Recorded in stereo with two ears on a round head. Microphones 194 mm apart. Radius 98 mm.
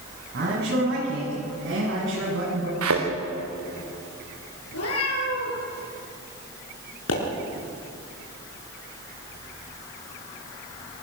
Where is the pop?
75° left (ahead or behind), 7 m.